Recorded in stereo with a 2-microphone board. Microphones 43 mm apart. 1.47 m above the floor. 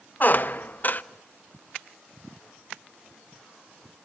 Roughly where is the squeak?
Left.